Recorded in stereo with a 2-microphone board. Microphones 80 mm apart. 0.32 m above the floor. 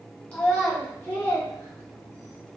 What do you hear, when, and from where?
0.3 s a child speaking: 20° left (ahead or behind), 1.5 m; by 2.4 s 10° left (ahead or behind), 1.1 m